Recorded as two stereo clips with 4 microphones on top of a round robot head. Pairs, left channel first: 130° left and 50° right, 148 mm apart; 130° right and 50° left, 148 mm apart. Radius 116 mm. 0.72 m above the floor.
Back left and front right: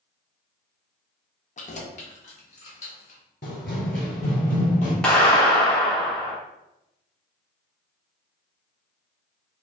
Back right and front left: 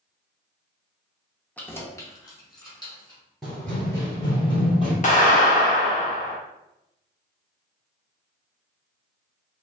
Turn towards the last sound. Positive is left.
turn(degrees=-145)